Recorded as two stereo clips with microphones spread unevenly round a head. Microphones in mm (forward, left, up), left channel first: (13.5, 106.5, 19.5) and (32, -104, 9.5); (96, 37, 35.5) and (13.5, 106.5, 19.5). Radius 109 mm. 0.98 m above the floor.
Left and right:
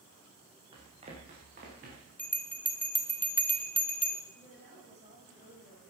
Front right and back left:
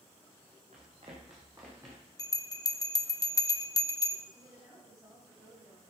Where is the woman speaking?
145° right, 6.5 m.